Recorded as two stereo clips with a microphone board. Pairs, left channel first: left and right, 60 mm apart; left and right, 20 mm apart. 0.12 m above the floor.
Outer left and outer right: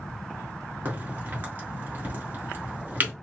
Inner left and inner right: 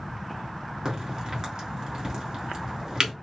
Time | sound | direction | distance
0.8 | a crack | 30° right (ahead or behind) | 1.7 m